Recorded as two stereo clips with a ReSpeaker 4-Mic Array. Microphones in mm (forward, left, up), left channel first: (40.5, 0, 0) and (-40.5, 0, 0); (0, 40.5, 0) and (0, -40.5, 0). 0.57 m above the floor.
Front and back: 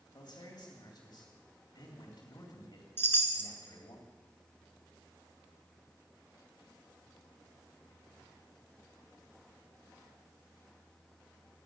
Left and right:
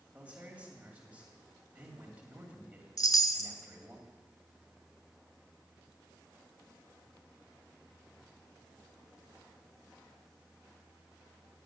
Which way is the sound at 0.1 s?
15° right.